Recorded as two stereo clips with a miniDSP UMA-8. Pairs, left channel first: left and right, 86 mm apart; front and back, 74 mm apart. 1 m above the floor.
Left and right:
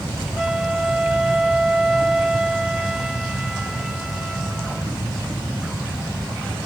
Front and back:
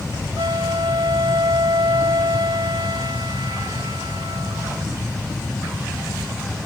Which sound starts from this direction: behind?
A flute, at 0.4 s.